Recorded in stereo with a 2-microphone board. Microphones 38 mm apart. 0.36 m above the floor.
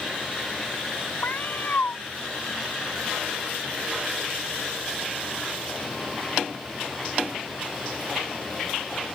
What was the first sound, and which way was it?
A cat meowing, 55° left (ahead or behind).